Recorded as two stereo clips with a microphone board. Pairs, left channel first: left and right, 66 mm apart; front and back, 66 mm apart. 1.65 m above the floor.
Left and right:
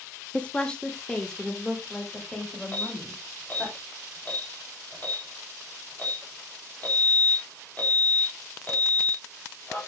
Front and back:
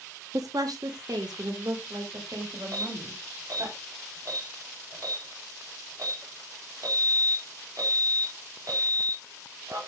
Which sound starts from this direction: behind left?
An alarm, at 2.7 s.